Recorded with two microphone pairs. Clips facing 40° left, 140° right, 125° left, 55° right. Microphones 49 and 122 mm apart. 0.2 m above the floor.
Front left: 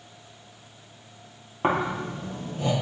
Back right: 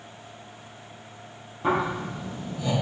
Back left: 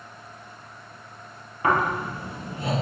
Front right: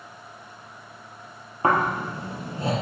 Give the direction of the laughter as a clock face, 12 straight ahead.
No laughter in this recording.